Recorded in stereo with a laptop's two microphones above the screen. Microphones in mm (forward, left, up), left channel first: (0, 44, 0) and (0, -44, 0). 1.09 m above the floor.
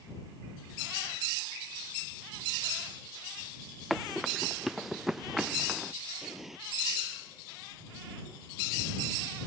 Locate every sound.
3.9 s running footsteps: centre (ahead or behind); by 5.9 s 5° right (ahead or behind)
6.2 s an explosion: 5° right (ahead or behind)